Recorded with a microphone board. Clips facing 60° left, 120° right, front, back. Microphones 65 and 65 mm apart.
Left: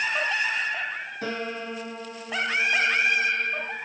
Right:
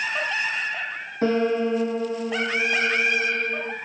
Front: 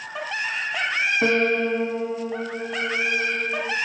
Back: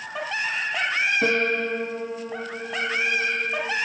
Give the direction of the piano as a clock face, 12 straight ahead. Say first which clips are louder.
Right 13 dB, front 2 dB; 2 o'clock.